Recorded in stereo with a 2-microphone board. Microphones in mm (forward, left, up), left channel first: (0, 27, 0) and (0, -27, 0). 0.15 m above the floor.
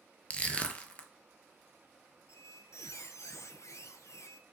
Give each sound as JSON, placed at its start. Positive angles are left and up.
{"t": 0.3, "sound": "crushing", "side_deg": 25, "distance_m": 0.6}
{"t": 2.3, "sound": "a squeak", "side_deg": 65, "distance_m": 0.5}